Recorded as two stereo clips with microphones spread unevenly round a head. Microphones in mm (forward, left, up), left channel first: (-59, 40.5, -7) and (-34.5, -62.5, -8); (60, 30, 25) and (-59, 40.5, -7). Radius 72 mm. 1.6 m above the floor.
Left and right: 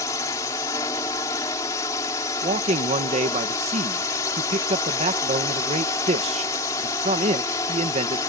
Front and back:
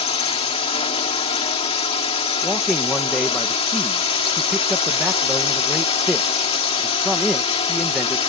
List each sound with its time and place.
0.0 s a drone: 35° left
2.4 s a man speaking: 95° right